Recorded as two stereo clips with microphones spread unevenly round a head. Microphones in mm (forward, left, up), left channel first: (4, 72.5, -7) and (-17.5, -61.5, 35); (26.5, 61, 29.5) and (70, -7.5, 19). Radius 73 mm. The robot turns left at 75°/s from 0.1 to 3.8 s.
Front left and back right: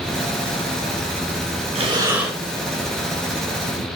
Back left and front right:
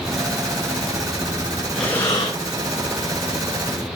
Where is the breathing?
145° right, 5 m; by 2.3 s 170° left, 5 m.